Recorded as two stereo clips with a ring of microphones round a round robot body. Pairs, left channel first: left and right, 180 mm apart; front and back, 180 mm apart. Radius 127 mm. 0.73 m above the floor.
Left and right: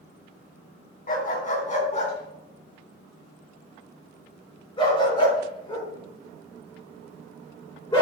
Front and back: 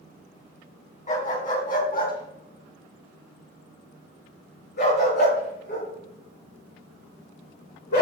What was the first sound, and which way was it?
A dog barking, 50° left.